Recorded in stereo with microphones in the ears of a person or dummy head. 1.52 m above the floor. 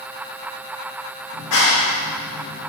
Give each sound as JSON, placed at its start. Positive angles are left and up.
{"t": 1.3, "sound": "a clap", "side_deg": 70, "distance_m": 2.0}